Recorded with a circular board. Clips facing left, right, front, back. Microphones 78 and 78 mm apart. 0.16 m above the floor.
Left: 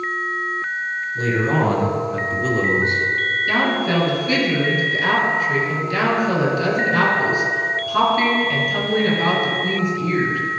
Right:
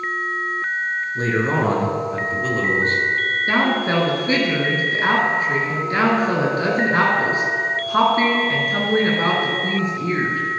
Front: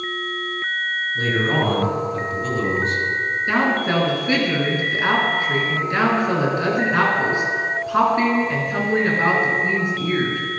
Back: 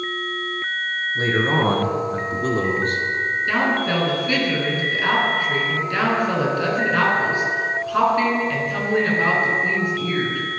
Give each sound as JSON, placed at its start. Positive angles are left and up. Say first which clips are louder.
{"t": 1.1, "sound": "a man speaking", "louder": "left 1 dB, back 1 dB", "azimuth_deg": -120, "distance_m": 2.0}
{"t": 3.5, "sound": "a woman speaking", "louder": "right 1 dB, front 2 dB", "azimuth_deg": -60, "distance_m": 2.0}